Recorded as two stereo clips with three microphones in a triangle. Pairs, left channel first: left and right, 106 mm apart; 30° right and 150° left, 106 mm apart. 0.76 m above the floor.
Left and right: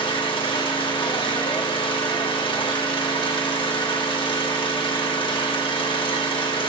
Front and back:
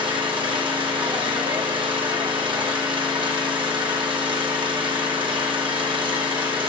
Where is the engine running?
120° left, 1.0 m.